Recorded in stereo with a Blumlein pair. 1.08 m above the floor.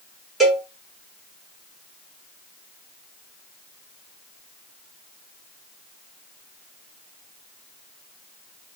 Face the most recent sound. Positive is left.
turn(degrees=0)